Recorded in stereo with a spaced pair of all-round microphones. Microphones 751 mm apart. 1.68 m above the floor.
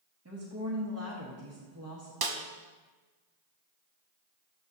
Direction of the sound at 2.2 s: 35° right (ahead or behind).